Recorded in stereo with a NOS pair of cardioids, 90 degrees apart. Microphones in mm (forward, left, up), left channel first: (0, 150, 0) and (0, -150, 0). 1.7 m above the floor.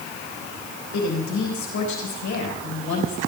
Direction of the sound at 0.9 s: 60° left.